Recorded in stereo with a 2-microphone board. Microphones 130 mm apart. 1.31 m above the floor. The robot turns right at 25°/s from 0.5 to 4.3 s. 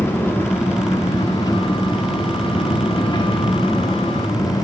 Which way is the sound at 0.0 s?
30° left.